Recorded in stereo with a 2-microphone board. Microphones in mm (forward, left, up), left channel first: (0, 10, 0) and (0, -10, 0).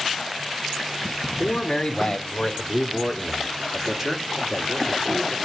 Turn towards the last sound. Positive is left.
turn(degrees=-50)  # may be behind; listen again after turning